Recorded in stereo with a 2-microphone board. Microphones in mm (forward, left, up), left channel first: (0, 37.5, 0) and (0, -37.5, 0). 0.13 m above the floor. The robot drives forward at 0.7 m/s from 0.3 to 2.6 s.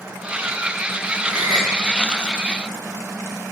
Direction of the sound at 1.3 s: 65° right (ahead or behind).